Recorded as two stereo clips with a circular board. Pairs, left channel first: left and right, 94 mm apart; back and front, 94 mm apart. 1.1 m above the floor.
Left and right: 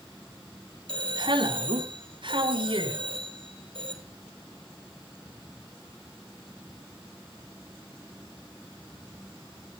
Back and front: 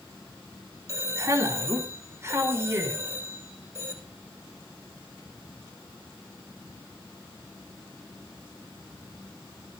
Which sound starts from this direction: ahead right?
A man speaking, at 0.9 s.